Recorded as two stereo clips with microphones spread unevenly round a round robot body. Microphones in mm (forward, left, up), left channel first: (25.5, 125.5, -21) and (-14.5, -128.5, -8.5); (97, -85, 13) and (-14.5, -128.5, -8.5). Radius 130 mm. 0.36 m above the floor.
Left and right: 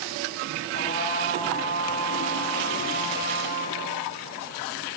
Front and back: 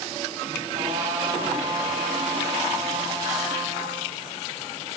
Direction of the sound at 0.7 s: 140° left.